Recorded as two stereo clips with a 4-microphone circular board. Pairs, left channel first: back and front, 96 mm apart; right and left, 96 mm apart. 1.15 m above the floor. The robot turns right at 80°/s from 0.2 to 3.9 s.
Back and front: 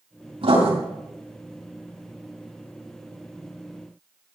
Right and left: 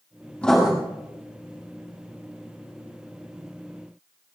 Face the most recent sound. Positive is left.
turn(degrees=-95)